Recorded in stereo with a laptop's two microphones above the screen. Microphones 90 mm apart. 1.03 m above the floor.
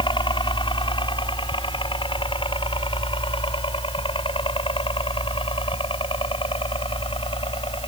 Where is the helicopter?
65° left (ahead or behind); by 7.9 s 75° left (ahead or behind).